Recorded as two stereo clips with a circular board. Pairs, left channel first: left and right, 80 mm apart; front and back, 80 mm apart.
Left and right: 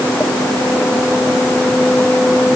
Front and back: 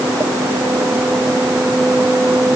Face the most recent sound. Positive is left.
No sound to turn to.